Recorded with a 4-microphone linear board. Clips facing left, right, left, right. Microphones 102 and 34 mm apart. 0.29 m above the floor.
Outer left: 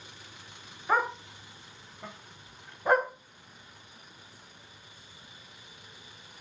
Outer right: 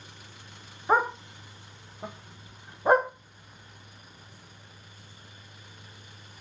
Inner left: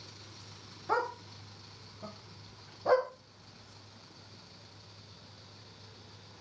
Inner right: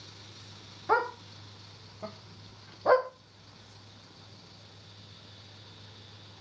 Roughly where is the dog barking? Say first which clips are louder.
Outer right 3 dB, inner right 5 dB; right.